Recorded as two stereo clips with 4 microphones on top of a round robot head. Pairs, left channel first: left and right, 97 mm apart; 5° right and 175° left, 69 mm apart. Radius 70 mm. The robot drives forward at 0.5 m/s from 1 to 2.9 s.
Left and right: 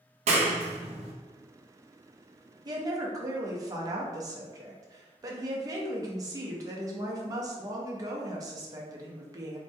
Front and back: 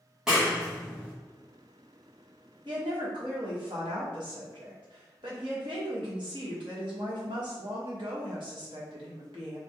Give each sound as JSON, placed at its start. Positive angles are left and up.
{"t": 0.3, "sound": "a clap", "azimuth_deg": -100, "distance_m": 0.6}
{"t": 2.6, "sound": "a woman speaking", "azimuth_deg": -130, "distance_m": 0.6}